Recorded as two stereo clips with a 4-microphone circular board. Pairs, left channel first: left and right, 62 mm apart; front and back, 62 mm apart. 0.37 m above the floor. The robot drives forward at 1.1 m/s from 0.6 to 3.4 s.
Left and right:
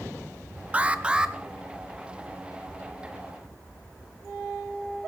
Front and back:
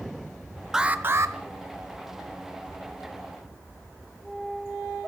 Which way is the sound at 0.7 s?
105° right.